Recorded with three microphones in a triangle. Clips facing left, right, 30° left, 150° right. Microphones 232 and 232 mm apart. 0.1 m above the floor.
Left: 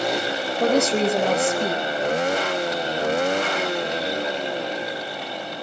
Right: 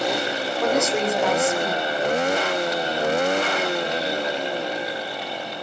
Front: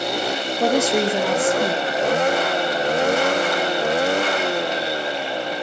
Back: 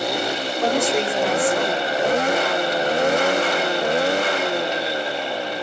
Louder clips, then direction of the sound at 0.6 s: Left 3 dB, front 3 dB; 45° left.